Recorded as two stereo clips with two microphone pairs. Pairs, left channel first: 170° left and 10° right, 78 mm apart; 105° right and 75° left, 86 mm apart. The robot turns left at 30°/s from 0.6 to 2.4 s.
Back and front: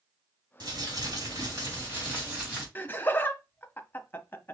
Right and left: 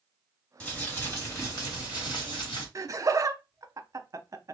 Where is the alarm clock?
No alarm clock in this recording.